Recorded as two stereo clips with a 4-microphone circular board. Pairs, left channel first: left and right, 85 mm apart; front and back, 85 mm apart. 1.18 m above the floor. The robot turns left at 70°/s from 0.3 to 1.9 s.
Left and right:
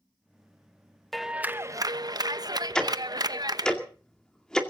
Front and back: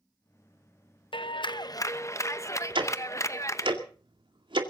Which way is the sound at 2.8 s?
170° left.